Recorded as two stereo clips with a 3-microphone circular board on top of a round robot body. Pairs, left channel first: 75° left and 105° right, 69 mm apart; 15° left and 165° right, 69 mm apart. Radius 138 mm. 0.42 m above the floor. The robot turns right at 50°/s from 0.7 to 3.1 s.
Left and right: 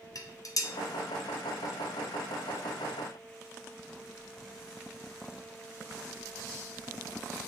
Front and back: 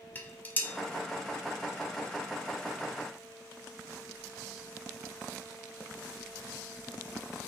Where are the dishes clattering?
75° left, 0.7 m.